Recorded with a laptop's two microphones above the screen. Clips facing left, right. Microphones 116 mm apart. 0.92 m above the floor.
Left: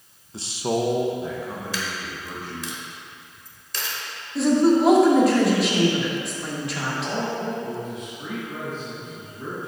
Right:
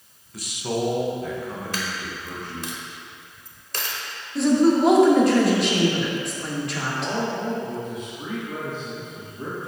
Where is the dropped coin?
55° right (ahead or behind), 0.9 m.